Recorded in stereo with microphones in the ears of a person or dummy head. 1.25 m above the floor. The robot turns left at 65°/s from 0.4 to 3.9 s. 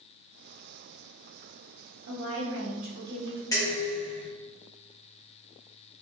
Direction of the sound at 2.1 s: 90° right.